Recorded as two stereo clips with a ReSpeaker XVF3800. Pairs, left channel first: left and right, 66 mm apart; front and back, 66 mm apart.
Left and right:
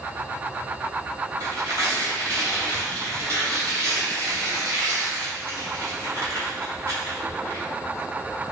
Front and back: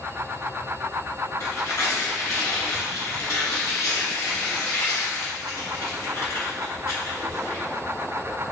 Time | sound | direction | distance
1.4 | tearing paper | 45° right | 1.2 m